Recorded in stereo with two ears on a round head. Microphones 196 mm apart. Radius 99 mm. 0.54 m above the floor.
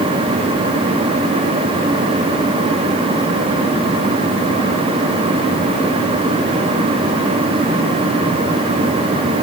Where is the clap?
I don't hear a clap.